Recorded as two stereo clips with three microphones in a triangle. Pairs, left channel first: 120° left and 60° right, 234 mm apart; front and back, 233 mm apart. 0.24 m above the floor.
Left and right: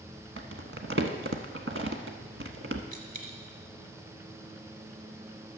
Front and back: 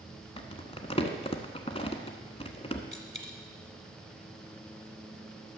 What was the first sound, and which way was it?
Crumpling, 60° right.